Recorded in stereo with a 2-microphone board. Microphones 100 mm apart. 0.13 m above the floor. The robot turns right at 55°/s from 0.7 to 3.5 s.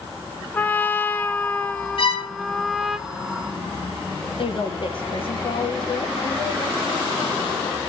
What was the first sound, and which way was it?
A trumpet, 20° left (ahead or behind).